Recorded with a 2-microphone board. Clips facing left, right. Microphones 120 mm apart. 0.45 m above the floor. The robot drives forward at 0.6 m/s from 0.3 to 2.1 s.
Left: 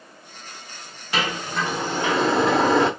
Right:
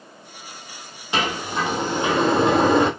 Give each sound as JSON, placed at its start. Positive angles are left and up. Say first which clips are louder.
{"t": 1.1, "sound": "a sliding door", "louder": "right 2 dB", "side_deg": -20, "distance_m": 1.1}